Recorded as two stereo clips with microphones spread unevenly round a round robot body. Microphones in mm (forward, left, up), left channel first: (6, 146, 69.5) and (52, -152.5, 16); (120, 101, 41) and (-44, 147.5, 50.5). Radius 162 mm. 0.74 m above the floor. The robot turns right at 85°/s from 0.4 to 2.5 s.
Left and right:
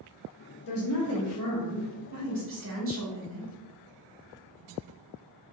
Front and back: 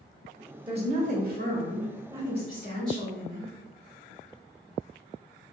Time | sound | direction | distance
0.7 | a woman speaking | 105° left | 1.6 m